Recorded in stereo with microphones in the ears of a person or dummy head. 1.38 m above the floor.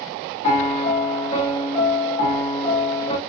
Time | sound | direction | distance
0.4 | a piano | 35° left (ahead or behind) | 1.5 m